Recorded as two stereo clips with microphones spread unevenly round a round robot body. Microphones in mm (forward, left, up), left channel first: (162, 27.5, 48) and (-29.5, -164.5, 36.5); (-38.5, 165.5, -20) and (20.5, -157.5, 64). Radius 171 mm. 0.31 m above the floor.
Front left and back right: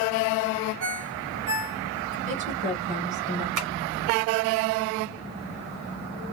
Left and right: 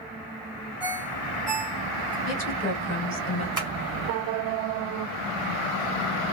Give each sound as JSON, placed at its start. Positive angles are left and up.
{"t": 0.8, "sound": "a ringtone", "azimuth_deg": -155, "distance_m": 1.4}
{"t": 2.2, "sound": "a woman speaking", "azimuth_deg": 160, "distance_m": 2.0}
{"t": 3.6, "sound": "tapping", "azimuth_deg": -160, "distance_m": 1.4}